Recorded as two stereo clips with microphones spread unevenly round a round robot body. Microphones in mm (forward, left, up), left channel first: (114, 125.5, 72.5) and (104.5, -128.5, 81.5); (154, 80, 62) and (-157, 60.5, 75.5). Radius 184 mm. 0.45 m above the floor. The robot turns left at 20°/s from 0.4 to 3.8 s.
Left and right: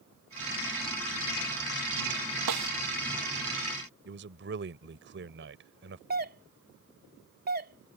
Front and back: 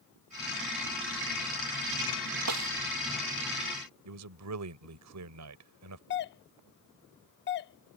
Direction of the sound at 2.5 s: 125° right.